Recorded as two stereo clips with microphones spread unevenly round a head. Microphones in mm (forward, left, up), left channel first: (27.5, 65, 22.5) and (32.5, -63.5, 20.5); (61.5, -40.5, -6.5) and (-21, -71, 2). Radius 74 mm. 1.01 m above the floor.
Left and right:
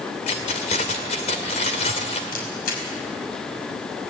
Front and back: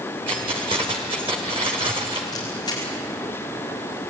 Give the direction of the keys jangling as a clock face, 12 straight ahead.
7 o'clock.